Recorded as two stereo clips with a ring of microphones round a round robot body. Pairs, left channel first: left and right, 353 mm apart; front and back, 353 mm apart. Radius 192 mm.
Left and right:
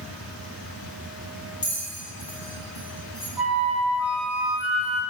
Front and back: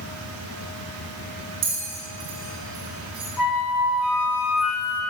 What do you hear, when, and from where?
1.6 s a bell: 160° left, 2 m
3.4 s a flute: 5° right, 1.0 m